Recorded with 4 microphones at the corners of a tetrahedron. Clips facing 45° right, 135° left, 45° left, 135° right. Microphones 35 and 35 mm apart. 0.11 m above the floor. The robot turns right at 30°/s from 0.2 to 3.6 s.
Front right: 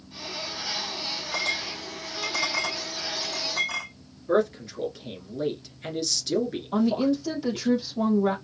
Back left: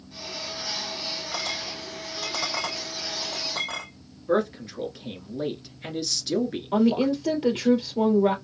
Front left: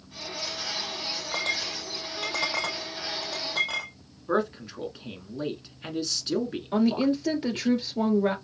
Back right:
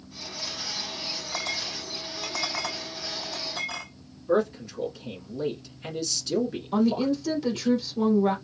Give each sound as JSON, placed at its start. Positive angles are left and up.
{"t": 1.3, "sound": "a clink", "azimuth_deg": 20, "distance_m": 3.0}
{"t": 4.3, "sound": "a man speaking", "azimuth_deg": 60, "distance_m": 1.3}
{"t": 6.7, "sound": "a woman speaking", "azimuth_deg": 95, "distance_m": 2.0}